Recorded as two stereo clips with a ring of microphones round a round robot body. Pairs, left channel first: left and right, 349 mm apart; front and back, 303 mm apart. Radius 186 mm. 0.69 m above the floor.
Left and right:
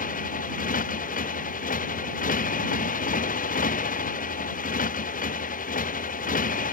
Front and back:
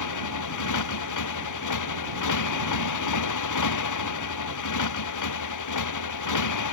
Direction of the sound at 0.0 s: 20° left.